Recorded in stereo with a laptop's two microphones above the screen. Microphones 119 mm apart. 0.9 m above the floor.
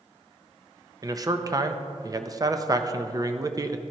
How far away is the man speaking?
About 0.5 m.